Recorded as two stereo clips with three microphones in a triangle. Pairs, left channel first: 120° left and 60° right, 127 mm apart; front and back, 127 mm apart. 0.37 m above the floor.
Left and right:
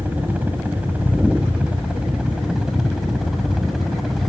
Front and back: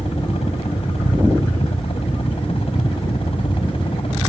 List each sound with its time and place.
0.0 s a helicopter: 15° left; by 4.3 s 30° left